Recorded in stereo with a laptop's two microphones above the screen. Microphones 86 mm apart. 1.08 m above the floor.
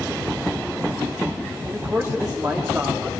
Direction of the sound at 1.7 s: 25° right (ahead or behind).